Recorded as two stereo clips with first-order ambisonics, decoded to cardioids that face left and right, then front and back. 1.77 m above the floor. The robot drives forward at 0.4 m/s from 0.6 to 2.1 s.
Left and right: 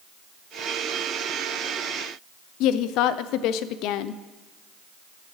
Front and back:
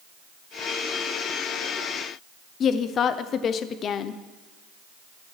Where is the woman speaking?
60° left, 0.5 m.